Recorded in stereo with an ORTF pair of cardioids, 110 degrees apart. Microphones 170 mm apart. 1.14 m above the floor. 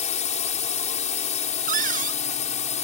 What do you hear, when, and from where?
0.0 s a drone: 45° left
1.7 s a cupboard door: 50° right